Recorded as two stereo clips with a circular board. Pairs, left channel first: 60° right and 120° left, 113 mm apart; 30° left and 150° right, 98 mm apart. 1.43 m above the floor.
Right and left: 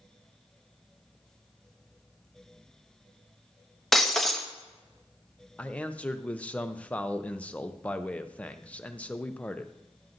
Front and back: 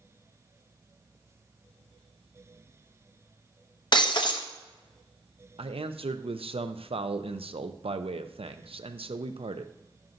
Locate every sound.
3.9 s breaking glass: 25° left, 0.9 m
5.6 s a man speaking: 140° right, 0.6 m